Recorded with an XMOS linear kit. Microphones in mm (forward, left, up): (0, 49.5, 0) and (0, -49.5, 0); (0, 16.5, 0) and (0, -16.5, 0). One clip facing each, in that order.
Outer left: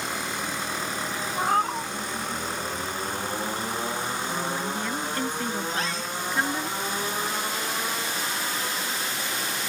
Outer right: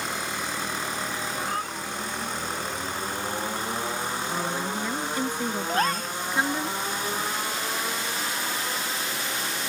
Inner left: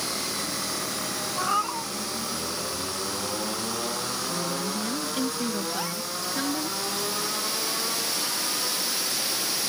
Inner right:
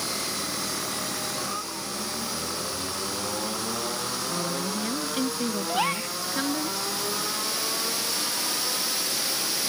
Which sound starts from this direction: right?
A gasp, at 5.7 s.